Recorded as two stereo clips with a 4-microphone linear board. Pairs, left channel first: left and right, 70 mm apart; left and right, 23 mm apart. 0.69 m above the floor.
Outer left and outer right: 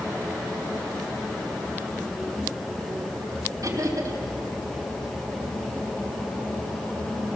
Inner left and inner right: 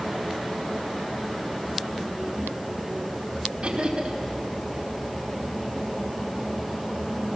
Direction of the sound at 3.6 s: 50° right (ahead or behind).